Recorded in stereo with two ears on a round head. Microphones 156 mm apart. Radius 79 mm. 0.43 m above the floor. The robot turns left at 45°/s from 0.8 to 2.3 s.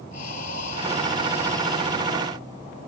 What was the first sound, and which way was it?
Breathing, 40° left.